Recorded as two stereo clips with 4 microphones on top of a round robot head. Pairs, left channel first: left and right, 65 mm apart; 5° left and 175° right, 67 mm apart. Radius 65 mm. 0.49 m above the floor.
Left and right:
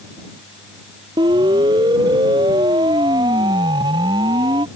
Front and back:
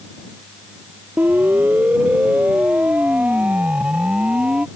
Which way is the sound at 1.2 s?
105° right.